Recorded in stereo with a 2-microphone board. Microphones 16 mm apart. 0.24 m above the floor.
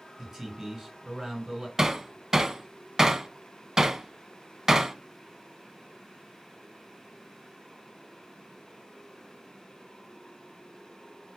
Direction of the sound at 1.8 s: 40° right (ahead or behind).